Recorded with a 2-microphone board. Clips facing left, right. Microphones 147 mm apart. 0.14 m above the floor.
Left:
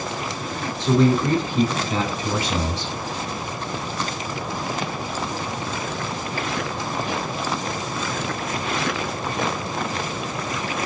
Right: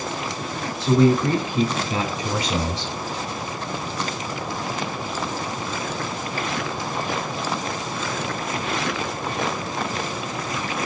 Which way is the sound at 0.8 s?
5° right (ahead or behind).